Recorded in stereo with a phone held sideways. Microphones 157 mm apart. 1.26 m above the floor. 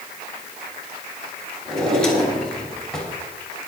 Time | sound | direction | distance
1.6 | a drawer | 5° left (ahead or behind) | 5 m